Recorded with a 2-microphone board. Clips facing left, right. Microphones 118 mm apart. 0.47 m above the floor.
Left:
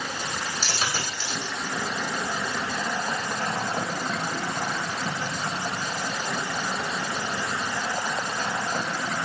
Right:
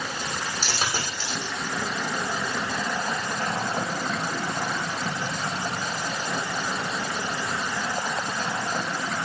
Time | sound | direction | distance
0.6 | a dropped coin | 45° right (ahead or behind) | 6.5 m